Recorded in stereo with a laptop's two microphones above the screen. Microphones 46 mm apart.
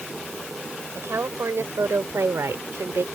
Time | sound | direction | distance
0.9 | a woman speaking | 70° right (ahead or behind) | ?